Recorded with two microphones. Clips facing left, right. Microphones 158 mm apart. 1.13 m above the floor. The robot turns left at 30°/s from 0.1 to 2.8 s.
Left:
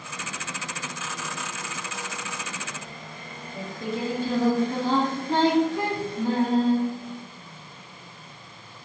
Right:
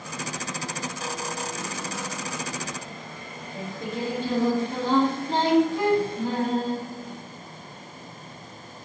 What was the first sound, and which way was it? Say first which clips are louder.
Singing: left 1 dB; 20° right (ahead or behind).